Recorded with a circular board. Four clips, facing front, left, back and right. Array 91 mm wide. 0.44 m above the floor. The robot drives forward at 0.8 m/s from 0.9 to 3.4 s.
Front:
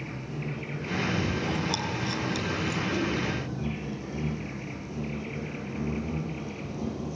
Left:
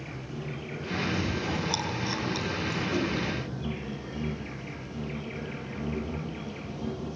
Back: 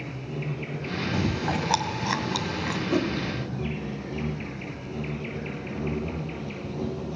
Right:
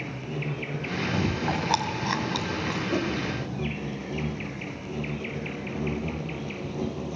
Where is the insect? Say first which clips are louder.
Right 5 dB, back 2 dB; 100° right, 9.5 m; by 7.2 s 110° right, 10 m.